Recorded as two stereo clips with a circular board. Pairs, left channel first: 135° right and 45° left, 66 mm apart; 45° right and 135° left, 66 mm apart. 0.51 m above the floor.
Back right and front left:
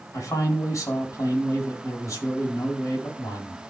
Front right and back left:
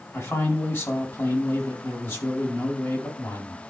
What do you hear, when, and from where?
0.1 s a man speaking: 95° right, 4 m